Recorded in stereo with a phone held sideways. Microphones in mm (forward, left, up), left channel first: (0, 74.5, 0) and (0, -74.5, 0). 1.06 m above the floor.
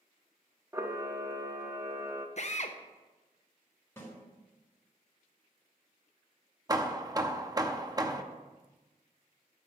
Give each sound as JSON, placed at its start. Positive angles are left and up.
{"t": 0.7, "sound": "a camera shutter", "side_deg": -20, "distance_m": 1.0}
{"t": 2.4, "sound": "a drill", "side_deg": 50, "distance_m": 0.8}
{"t": 4.0, "sound": "a snare drum", "side_deg": 15, "distance_m": 4.0}
{"t": 6.7, "sound": "hammering", "side_deg": -25, "distance_m": 0.7}